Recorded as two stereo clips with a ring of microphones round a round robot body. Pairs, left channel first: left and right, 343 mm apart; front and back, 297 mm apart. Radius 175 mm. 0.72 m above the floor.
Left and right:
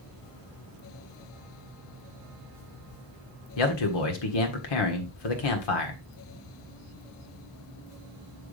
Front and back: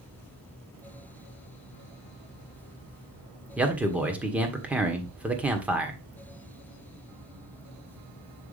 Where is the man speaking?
95° left, 1.7 m.